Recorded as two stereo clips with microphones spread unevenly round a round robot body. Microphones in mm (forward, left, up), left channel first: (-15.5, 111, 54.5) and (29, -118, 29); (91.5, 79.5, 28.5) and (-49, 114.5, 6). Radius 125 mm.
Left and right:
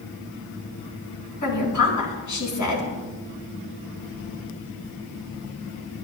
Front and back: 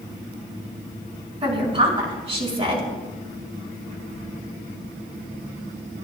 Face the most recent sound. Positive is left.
turn(degrees=115)